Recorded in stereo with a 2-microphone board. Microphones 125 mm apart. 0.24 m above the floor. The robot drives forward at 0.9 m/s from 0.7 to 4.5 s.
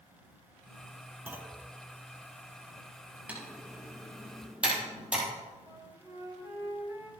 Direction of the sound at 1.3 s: 15° right (ahead or behind).